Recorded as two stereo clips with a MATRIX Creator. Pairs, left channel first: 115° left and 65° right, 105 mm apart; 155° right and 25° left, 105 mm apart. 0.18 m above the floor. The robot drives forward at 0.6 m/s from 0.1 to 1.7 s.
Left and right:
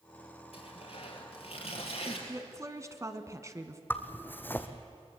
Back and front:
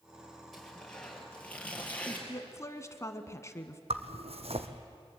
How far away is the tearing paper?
About 3.5 m.